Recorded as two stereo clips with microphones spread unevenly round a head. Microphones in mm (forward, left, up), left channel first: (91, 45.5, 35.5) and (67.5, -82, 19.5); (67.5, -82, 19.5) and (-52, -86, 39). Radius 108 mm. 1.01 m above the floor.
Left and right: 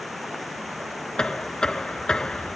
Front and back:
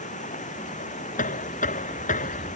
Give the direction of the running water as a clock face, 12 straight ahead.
12 o'clock.